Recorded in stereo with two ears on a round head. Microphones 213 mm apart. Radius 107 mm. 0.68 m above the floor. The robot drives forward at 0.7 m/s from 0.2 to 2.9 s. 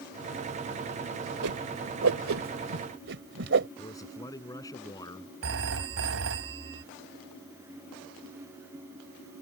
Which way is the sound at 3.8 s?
15° left (ahead or behind).